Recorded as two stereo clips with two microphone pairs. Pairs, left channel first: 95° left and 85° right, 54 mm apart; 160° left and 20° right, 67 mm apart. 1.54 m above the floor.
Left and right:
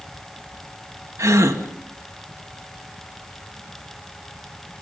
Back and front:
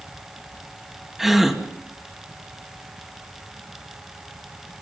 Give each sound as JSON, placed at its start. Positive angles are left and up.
{"t": 1.2, "sound": "a gasp", "azimuth_deg": -105, "distance_m": 2.0}